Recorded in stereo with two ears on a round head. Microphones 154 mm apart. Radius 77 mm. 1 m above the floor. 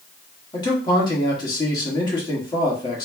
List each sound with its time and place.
0.5 s a man speaking: 25° left (ahead or behind), 1.8 m